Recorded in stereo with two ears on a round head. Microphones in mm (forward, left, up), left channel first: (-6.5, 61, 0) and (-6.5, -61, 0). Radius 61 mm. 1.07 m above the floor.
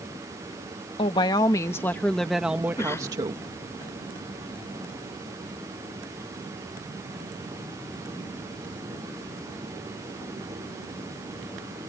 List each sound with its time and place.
1.0 s a woman speaking: 35° left (ahead or behind); by 3.4 s 35° right (ahead or behind)
2.8 s a cough: 20° left (ahead or behind)